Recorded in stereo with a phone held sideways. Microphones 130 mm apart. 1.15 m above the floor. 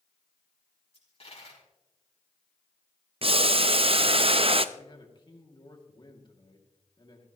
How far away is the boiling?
About 0.5 m.